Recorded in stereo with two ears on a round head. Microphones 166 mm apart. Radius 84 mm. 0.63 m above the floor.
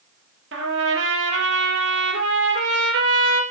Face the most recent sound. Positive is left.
turn(degrees=-65)  # may be behind; listen again after turning